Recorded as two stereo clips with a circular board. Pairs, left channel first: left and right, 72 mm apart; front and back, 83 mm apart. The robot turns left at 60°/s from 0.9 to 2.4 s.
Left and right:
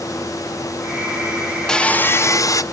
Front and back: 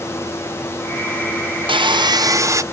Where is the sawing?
170° left, 0.8 m; by 2.6 s 125° left, 0.8 m.